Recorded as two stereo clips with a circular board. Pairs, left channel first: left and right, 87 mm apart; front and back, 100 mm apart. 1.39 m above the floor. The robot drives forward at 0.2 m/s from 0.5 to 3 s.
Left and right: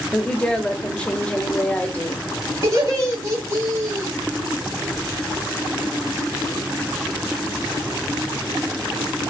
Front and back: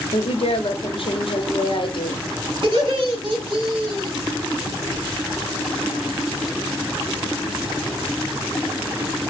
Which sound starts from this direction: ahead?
A woman speaking, at 0.1 s.